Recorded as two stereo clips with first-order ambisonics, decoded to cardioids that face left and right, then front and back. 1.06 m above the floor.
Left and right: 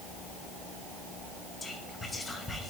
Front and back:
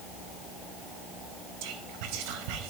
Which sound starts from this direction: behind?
Whispering, at 1.6 s.